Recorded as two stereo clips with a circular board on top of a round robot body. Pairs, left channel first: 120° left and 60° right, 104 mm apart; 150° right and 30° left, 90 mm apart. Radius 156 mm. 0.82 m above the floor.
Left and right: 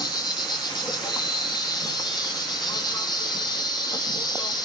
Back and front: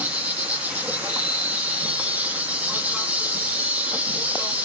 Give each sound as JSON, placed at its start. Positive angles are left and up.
{"t": 0.0, "sound": "an insect", "azimuth_deg": 95, "distance_m": 1.1}